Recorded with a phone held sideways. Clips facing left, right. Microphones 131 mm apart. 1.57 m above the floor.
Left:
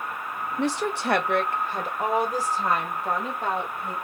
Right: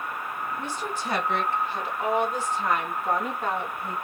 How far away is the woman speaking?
About 0.7 m.